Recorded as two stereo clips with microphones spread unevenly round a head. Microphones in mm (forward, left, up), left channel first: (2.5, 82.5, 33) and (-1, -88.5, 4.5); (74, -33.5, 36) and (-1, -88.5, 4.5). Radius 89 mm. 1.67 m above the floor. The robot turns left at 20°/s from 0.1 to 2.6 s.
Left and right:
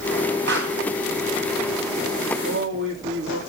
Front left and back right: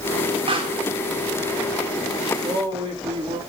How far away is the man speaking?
About 3 m.